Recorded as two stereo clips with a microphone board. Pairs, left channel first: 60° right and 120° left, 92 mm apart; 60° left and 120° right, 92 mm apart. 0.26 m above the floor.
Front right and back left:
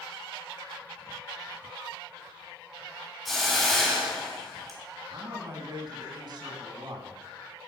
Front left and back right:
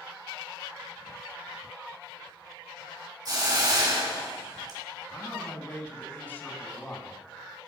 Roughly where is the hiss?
Behind right.